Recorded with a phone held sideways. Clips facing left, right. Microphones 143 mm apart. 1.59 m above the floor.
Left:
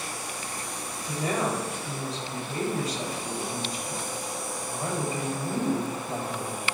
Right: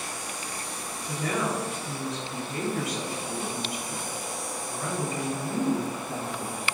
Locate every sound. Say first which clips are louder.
1.1 s a woman speaking: left 1 dB; 35° left (ahead or behind), 4 m